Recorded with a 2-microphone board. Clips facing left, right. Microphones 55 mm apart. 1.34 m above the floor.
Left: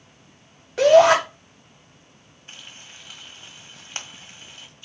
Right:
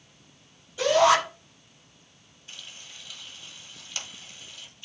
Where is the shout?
85° left, 5.5 m.